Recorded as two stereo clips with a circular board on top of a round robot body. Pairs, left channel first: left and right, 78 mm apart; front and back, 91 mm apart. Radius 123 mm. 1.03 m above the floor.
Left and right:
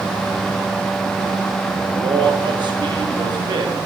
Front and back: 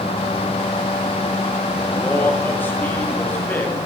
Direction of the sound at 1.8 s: 70° right.